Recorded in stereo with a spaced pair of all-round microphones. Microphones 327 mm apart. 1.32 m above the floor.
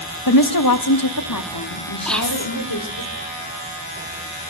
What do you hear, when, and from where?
0.3 s a woman speaking: 80° left, 1.3 m; by 3.0 s 85° left, 4 m
2.0 s whispering: centre (ahead or behind), 3 m